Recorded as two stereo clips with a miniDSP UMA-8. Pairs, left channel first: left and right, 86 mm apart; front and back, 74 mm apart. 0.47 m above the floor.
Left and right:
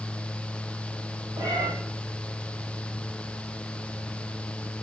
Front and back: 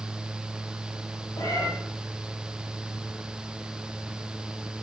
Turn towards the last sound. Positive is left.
turn(degrees=-45)